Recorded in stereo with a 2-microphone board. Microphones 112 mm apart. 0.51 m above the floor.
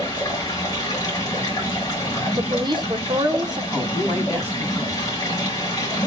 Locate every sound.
0.0 s running water: 35° left (ahead or behind), 2 m
2.4 s a woman speaking: 40° right (ahead or behind), 0.9 m
3.7 s a woman speaking: 10° right (ahead or behind), 4.5 m